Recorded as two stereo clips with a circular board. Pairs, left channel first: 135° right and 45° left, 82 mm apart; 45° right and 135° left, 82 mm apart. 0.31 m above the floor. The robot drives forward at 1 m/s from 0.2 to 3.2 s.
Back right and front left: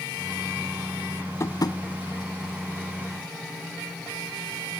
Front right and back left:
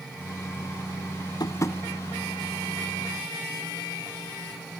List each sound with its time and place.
1.4 s tapping: 80° right, 0.9 m; by 1.8 s 110° right, 0.9 m